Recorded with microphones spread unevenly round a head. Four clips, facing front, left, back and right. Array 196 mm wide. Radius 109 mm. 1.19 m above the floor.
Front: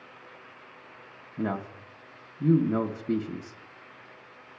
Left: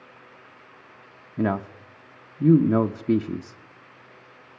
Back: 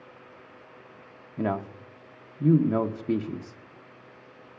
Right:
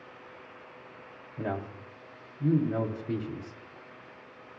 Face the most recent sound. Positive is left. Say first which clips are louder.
# left 9 dB, back 2 dB
turn(degrees=75)